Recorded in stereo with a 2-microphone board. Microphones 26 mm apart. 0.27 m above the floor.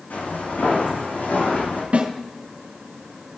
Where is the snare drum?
60° right (ahead or behind), 3 m.